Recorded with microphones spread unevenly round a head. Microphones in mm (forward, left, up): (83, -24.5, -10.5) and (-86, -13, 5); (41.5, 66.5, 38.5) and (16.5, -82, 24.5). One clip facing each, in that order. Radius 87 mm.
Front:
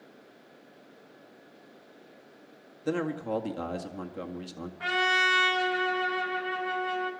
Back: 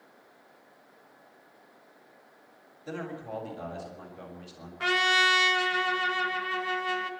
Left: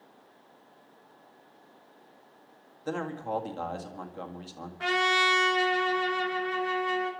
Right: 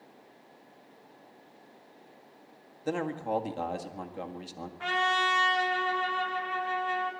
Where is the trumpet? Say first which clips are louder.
Back 1 dB, left 2 dB; 135° left, 1.9 m.